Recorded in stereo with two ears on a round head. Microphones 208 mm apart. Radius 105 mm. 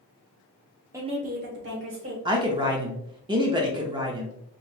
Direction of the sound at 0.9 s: 10° right (ahead or behind).